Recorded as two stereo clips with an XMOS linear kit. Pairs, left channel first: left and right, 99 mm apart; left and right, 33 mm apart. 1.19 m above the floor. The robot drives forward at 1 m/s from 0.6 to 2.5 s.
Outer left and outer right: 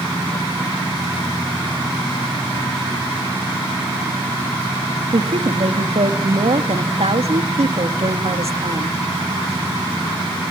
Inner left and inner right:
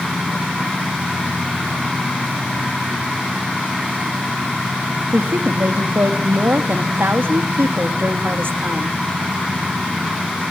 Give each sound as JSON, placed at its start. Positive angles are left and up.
{"t": 5.1, "sound": "a woman speaking", "side_deg": -85, "distance_m": 1.7}